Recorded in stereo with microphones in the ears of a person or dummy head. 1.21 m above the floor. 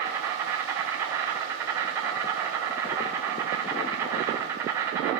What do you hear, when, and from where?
0.0 s an insect: 15° right (ahead or behind), 2.5 m